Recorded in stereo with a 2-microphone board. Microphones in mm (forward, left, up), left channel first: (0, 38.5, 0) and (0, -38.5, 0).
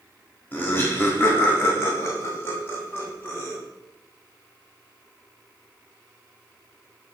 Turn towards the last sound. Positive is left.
turn(degrees=30)  # may be behind; listen again after turning